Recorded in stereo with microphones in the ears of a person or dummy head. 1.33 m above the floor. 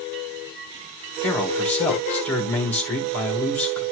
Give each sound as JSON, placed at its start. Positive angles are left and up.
{"t": 1.2, "sound": "a man speaking", "side_deg": 10, "distance_m": 2.0}